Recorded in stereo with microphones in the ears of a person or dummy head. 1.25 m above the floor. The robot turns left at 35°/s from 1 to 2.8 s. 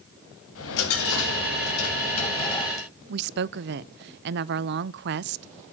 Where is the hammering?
I don't hear hammering.